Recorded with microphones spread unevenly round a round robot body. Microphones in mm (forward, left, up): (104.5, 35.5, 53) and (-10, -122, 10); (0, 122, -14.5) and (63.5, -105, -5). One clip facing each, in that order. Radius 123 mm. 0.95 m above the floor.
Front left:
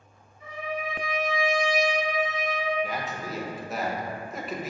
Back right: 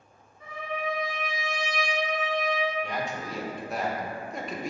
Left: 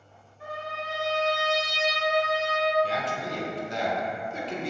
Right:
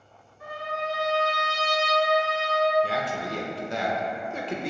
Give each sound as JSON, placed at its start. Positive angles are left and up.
{"t": 0.4, "sound": "a trumpet", "azimuth_deg": 175, "distance_m": 1.0}
{"t": 2.8, "sound": "a man speaking", "azimuth_deg": -45, "distance_m": 0.6}